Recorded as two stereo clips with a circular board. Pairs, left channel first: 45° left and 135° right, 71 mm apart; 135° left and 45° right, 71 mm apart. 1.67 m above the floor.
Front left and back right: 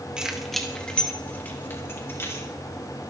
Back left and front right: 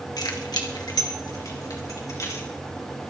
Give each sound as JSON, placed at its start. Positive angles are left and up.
{"t": 0.2, "sound": "keys jangling", "azimuth_deg": 145, "distance_m": 1.8}